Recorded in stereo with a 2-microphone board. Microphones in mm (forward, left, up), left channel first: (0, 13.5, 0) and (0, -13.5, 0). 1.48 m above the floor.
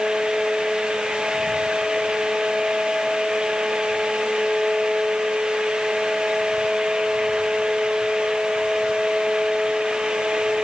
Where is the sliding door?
No sliding door in this recording.